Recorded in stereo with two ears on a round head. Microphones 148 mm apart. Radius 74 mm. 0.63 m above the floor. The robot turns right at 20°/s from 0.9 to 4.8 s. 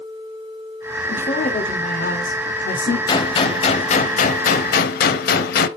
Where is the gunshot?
25° left, 0.9 m; by 5.7 s 60° left, 0.9 m.